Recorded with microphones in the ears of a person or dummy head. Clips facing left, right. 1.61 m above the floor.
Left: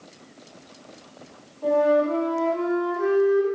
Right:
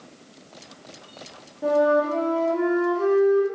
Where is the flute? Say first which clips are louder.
Even; 30° right (ahead or behind), 1.2 m.